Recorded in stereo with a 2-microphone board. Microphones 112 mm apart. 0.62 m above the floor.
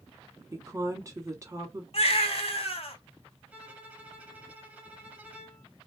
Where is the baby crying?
65° left (ahead or behind), 1.1 m.